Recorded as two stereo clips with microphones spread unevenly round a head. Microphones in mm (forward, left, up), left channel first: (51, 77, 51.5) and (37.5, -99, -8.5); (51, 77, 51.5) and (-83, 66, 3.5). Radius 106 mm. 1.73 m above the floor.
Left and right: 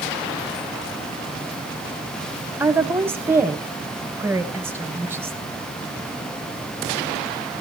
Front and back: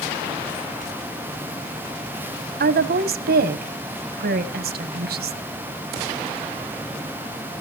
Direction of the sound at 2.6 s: Straight behind.